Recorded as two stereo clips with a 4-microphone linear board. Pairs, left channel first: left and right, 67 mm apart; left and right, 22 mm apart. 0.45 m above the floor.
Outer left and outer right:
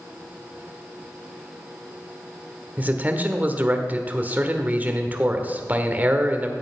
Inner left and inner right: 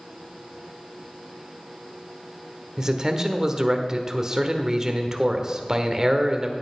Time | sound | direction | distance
2.8 | a man speaking | 25° right (ahead or behind) | 1.4 m